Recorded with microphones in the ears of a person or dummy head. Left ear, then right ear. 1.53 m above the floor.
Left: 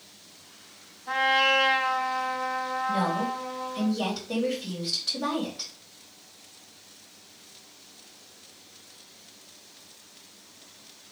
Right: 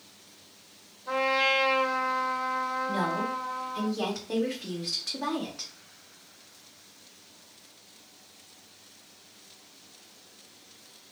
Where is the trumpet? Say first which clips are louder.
Left 3 dB; 15° right (ahead or behind), 1.5 m.